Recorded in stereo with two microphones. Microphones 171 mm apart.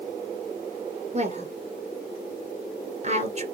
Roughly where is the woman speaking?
Right.